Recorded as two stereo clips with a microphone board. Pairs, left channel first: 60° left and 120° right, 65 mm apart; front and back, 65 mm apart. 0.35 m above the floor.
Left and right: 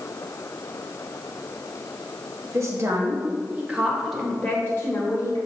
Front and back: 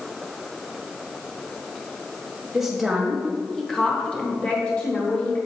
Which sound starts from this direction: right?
A woman speaking, at 2.5 s.